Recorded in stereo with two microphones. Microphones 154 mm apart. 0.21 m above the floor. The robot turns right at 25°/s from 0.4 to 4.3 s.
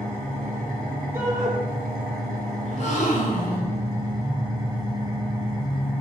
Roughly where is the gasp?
Left.